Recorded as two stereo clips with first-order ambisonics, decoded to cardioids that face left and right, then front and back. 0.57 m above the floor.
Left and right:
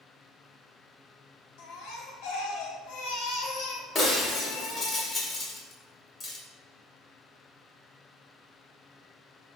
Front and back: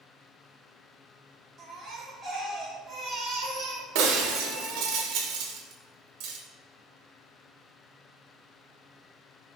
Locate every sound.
1.6 s a baby crying: 110° left, 1.6 m
4.0 s breaking glass: 160° left, 1.4 m